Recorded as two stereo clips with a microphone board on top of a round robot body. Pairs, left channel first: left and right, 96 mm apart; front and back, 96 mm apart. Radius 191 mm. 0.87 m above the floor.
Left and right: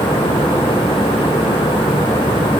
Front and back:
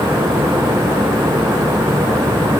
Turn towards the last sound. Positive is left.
No sound to turn to.